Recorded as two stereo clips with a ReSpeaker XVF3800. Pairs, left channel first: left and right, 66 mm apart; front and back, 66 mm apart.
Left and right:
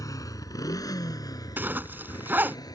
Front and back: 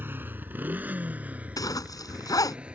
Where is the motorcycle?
120° left; by 2.8 s 105° left.